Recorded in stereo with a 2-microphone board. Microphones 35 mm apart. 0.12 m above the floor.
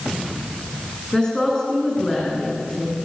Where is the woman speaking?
25° left (ahead or behind), 8.5 m.